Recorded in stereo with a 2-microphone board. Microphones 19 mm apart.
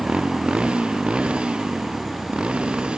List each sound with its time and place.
0.0 s a motorcycle: 75° right (ahead or behind)